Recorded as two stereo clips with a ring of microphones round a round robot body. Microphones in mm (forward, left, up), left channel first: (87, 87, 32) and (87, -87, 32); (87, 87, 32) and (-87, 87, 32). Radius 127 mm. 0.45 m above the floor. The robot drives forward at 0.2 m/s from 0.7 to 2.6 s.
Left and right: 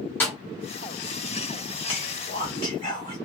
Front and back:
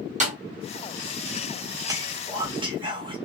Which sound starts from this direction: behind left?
Whispering, at 1.9 s.